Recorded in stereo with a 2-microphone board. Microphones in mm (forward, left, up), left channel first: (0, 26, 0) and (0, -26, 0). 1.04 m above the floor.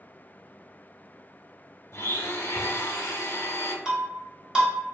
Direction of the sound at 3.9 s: 15° right (ahead or behind).